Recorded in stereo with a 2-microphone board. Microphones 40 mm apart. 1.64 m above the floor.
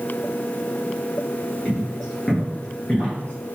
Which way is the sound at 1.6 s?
Centre (ahead or behind).